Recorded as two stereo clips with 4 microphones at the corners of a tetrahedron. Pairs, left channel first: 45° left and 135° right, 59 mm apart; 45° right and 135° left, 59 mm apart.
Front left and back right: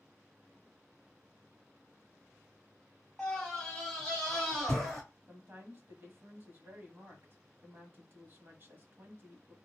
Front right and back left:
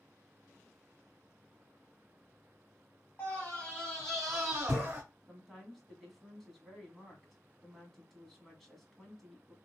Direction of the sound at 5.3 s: 135° right.